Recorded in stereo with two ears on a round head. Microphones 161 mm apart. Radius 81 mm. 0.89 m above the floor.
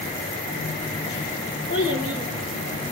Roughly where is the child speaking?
Left.